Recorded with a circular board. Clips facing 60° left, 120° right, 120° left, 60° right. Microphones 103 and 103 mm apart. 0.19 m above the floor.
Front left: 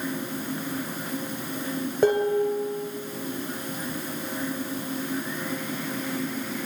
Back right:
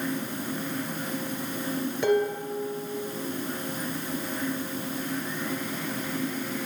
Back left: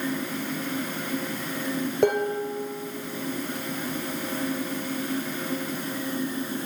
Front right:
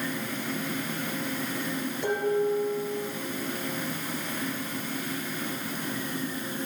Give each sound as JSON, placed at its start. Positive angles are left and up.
{"t": 2.0, "sound": "dishes clattering", "azimuth_deg": 105, "distance_m": 2.5}